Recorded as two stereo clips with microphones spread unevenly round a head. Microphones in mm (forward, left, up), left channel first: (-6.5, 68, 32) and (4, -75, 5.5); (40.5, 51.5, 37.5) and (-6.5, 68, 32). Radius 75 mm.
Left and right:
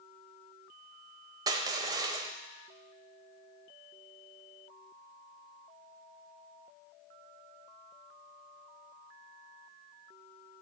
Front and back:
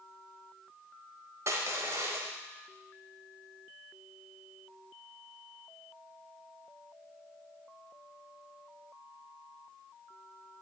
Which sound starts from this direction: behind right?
Crushing, at 1.5 s.